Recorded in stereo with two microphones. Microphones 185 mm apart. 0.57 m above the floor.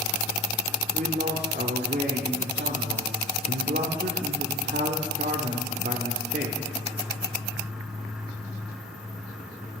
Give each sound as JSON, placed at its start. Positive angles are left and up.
{"t": 0.9, "sound": "a man speaking", "side_deg": -50, "distance_m": 1.6}